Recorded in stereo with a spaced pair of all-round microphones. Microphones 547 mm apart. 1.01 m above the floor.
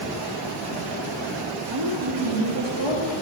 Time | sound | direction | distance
1.7 | a woman speaking | 70° right (ahead or behind) | 2 m